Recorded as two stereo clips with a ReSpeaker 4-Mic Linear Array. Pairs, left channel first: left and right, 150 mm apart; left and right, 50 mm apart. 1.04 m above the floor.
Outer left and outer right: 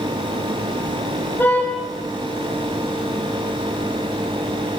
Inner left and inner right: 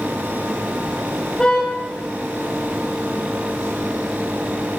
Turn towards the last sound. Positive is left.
turn(degrees=15)  # may be behind; listen again after turning